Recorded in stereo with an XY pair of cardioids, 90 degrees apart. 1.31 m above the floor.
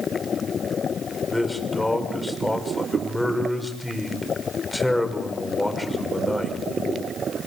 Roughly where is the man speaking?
Ahead.